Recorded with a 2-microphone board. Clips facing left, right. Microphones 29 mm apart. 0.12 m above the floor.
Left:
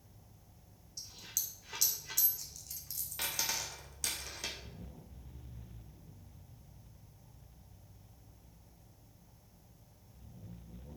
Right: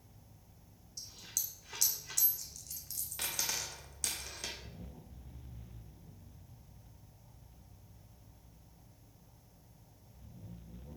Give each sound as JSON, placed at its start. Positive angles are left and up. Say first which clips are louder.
{"t": 1.0, "sound": "a dropped coin", "louder": "even", "side_deg": 5, "distance_m": 1.4}